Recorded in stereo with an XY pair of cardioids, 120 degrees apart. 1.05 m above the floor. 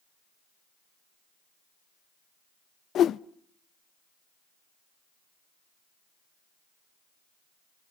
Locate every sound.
3.0 s a whoosh: 55° left, 0.6 m